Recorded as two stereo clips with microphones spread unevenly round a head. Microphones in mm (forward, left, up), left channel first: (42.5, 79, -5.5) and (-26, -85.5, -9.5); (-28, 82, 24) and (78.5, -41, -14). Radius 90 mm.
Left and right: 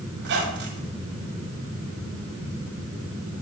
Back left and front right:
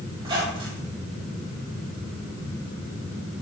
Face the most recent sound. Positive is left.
turn(degrees=-120)